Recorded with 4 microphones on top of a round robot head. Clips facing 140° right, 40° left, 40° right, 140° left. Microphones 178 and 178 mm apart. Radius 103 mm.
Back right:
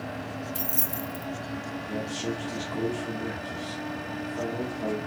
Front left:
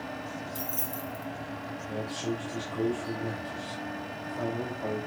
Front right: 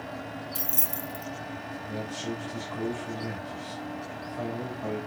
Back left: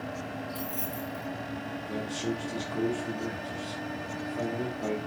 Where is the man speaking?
170° right, 2.5 m.